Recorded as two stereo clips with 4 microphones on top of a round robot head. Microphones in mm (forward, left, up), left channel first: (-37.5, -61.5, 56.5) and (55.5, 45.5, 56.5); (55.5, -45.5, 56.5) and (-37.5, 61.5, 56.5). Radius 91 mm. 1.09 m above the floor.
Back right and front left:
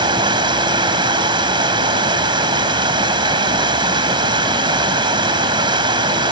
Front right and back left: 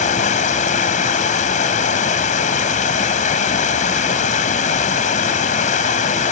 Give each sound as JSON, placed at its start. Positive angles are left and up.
{"t": 0.0, "sound": "running water", "azimuth_deg": -10}